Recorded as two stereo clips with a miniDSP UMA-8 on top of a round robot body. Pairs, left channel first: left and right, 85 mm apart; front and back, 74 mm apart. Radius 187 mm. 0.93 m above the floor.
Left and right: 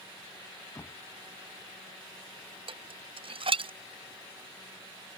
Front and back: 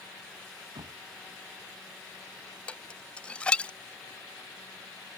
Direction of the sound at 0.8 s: 150° left.